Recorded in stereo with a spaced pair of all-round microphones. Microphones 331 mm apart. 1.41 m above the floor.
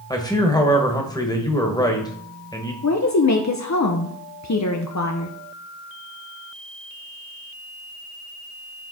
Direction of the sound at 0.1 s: 10° left (ahead or behind).